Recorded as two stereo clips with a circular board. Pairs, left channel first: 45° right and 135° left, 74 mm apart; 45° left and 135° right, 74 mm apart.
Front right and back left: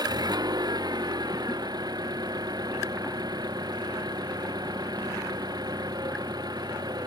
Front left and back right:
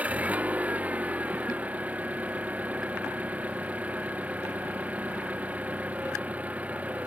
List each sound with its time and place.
0.0 s an engine running: 155° left